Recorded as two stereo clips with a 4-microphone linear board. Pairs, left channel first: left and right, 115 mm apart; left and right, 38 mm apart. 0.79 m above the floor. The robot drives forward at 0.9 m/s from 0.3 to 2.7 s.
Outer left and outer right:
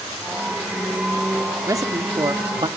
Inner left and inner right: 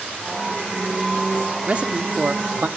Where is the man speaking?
30° right (ahead or behind), 2 m; by 2.7 s 45° right (ahead or behind), 1.6 m.